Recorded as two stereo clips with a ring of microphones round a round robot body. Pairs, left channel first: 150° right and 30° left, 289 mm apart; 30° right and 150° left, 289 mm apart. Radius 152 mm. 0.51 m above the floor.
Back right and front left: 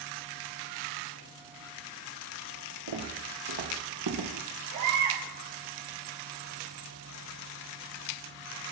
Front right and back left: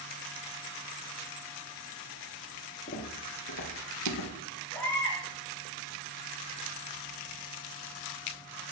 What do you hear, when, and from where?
2.9 s footsteps: 35° left, 3.5 m; by 4.3 s straight ahead, 3 m
4.7 s a baby crying: 55° left, 4 m